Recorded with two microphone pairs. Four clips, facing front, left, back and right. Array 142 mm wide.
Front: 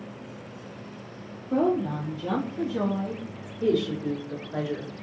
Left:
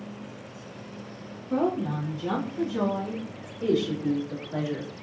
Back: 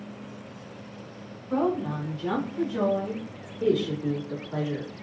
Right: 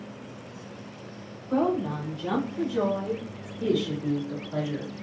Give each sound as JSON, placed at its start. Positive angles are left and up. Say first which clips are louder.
{"t": 1.5, "sound": "a woman speaking", "louder": "right 1 dB, front 2 dB", "azimuth_deg": -165, "distance_m": 1.8}
{"t": 3.6, "sound": "a woman speaking", "louder": "left 1 dB, even", "azimuth_deg": -175, "distance_m": 1.6}